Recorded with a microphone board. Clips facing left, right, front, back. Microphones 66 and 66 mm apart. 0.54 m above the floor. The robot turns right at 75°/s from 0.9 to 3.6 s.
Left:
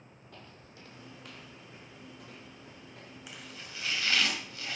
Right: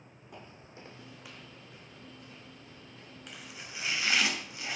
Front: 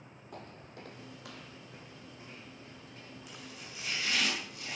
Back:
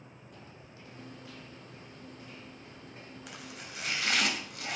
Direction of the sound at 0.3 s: 20° right.